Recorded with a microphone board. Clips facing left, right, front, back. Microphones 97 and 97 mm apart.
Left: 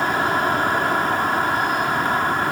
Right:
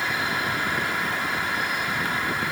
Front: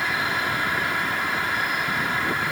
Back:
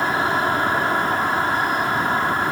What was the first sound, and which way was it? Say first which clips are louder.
An insect: left 7 dB, back 6 dB; 130° left.